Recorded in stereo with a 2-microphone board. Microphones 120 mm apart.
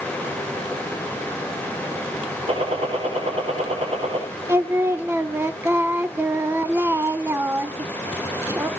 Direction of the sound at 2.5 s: 50° right (ahead or behind).